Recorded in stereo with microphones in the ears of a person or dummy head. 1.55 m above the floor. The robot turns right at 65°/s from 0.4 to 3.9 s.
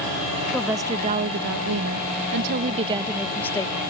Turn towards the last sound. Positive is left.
turn(degrees=40)